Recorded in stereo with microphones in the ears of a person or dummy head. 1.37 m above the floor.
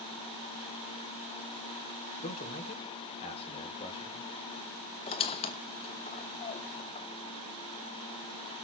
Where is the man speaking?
40° left (ahead or behind), 2.5 m; by 4.3 s 25° left (ahead or behind), 3 m.